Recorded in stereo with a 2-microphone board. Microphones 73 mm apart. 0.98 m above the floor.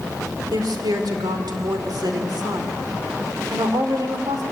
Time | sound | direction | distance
0.5 | a woman speaking | 80° right | 2.5 m